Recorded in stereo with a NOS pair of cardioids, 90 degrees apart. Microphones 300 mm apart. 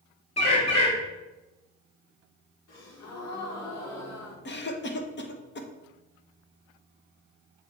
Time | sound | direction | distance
0.4 | a bird | 20° left | 3 m
2.7 | a gasp | 60° left | 2 m
4.5 | a cough | 40° left | 1.3 m